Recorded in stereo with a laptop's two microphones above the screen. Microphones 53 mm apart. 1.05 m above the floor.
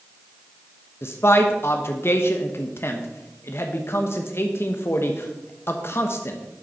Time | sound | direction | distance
1.0 | a man speaking | 55° left (ahead or behind) | 0.9 m